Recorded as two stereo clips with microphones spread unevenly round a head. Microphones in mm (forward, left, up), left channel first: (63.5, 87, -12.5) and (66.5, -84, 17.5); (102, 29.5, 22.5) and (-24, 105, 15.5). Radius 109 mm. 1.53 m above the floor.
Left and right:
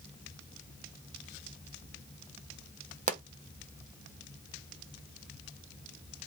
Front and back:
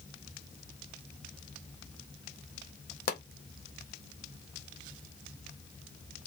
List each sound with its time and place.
3.1 s a pop: 50° right, 0.7 m